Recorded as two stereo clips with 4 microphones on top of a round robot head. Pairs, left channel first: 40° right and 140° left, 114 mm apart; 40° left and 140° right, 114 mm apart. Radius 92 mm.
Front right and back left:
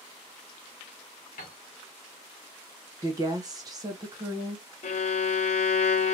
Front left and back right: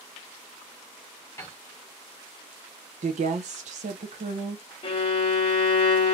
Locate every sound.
1.4 s a piano: 30° right, 1.2 m
3.0 s a woman speaking: 160° right, 0.7 m
4.8 s a violin: 5° right, 0.6 m